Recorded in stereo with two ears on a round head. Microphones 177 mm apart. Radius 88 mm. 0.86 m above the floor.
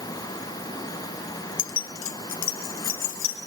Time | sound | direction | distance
1.6 | keys jangling | 60° left (ahead or behind) | 0.5 m